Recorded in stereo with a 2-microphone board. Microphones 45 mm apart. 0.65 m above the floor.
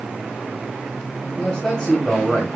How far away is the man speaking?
About 3 m.